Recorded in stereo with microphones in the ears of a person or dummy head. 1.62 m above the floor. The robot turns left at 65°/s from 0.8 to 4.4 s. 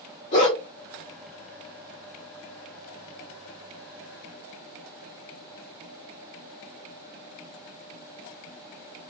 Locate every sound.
0.3 s a dog barking: 35° left (ahead or behind), 1.5 m